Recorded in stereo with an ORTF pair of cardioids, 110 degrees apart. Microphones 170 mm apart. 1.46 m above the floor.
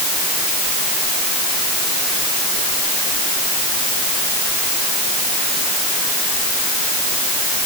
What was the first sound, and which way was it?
Only background noise.